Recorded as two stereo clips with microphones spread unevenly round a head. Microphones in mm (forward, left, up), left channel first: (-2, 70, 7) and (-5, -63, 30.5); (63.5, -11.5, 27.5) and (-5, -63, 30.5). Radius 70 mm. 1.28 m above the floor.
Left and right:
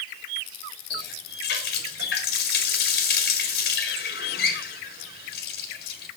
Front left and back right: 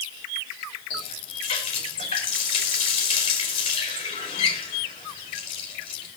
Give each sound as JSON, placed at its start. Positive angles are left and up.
{"t": 0.9, "sound": "a running tap", "azimuth_deg": 80, "distance_m": 2.0}